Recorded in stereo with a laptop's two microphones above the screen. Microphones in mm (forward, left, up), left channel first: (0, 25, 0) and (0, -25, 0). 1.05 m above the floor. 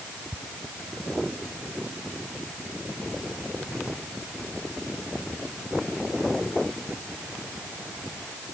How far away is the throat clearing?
I don't hear throat clearing.